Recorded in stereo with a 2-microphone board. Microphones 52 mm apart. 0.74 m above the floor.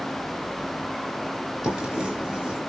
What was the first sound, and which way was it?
Writing, 15° right (ahead or behind).